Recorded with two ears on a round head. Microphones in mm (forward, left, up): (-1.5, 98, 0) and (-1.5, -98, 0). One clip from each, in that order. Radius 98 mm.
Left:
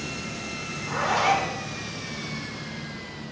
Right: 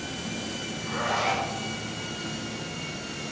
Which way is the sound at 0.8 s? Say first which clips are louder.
Left 3 dB; 10° left (ahead or behind).